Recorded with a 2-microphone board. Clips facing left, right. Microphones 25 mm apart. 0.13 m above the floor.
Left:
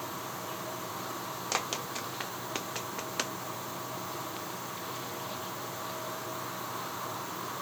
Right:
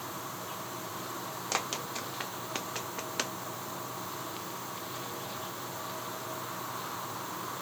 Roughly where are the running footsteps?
Centre.